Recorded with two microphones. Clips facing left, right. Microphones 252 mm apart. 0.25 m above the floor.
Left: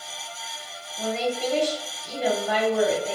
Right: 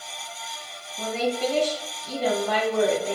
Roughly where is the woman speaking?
Centre.